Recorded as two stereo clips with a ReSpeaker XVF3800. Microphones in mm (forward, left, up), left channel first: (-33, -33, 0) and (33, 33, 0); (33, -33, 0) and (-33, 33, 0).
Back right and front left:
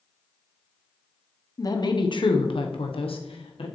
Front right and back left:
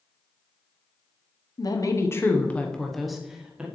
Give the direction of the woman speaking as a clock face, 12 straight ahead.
3 o'clock.